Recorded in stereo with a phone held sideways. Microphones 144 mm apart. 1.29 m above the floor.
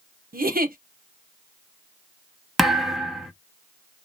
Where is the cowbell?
No cowbell in this recording.